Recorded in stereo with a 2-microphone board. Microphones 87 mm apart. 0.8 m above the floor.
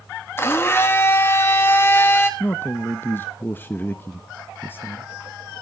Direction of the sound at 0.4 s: 25° left (ahead or behind).